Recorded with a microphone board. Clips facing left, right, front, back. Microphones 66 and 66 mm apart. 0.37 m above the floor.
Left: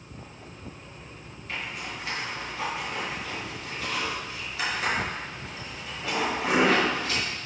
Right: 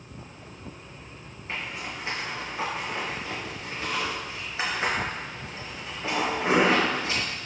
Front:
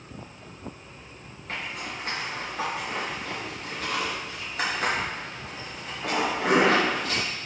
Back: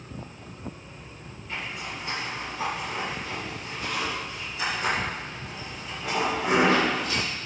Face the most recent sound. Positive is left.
turn(degrees=-30)